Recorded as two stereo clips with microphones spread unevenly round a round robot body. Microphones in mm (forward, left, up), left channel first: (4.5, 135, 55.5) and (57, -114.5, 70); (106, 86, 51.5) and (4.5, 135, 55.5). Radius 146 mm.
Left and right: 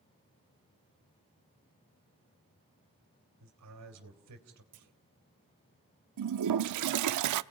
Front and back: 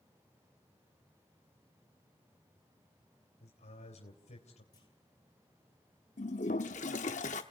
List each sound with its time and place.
3.4 s a man speaking: 60° right, 3 m
4.7 s a clunk: 95° right, 1.8 m
6.2 s a toilet flushing: 65° right, 0.6 m